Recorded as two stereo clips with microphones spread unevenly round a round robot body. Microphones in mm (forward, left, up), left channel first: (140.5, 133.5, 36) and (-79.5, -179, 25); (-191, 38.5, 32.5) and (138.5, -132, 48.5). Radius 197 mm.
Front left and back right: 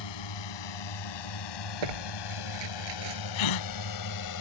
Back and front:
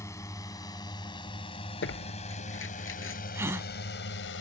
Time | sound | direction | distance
0.0 | a drone | 70° left | ?
1.8 | tearing paper | 150° right | ?
3.4 | a gasp | 55° left | ?